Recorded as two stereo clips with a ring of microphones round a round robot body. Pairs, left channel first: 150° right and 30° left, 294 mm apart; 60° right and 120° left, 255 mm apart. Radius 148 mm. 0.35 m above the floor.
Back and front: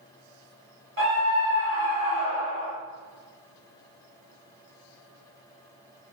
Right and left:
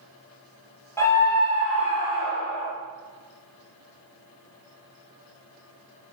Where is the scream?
15° left, 1.5 m; by 2.7 s 45° right, 1.6 m.